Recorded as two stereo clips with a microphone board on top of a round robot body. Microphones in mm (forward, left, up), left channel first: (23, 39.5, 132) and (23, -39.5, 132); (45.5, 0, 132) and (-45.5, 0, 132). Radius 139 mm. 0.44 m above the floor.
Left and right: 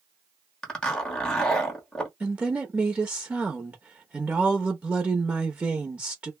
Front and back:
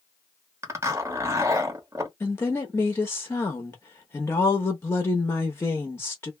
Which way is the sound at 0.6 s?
165° left.